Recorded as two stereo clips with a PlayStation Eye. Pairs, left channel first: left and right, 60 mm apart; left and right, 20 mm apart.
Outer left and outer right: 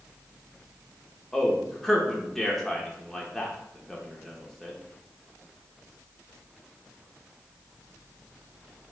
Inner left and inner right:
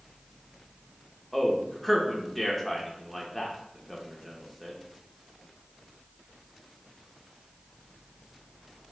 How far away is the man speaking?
About 0.7 m.